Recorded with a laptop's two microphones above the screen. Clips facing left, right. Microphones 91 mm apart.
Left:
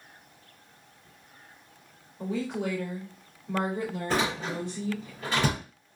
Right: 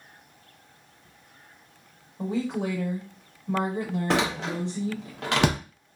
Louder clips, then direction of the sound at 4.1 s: Right 3 dB; 75° right (ahead or behind).